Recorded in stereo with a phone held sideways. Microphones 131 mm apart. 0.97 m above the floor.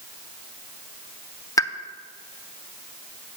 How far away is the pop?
About 0.5 m.